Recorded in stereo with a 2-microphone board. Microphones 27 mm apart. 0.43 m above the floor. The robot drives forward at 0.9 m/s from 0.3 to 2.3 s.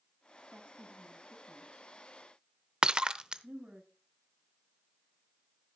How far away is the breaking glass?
About 0.6 m.